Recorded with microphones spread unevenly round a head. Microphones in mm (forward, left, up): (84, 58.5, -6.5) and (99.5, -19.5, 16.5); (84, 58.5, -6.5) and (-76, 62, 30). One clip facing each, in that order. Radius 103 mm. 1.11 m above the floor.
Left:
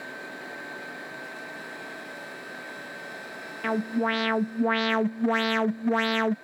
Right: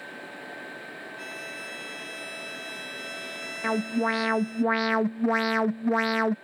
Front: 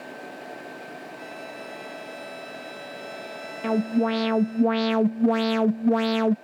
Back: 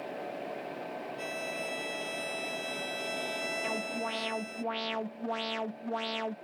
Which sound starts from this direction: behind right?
A violin, at 1.2 s.